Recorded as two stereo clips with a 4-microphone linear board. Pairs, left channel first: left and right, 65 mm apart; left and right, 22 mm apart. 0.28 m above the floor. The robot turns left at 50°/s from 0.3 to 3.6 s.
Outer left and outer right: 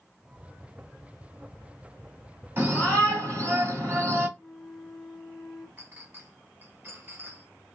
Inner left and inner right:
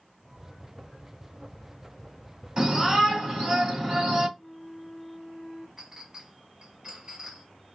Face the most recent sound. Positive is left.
turn(degrees=-40)  # may be behind; listen again after turning